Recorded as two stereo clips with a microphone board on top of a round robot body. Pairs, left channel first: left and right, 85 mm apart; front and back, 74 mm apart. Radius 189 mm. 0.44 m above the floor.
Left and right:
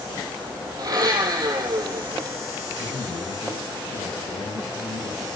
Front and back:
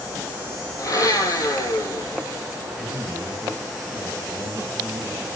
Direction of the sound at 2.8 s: 70° left.